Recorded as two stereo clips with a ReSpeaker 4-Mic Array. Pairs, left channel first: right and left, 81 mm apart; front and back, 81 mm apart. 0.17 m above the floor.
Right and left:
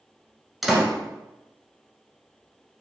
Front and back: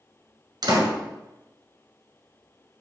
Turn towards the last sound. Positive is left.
turn(degrees=180)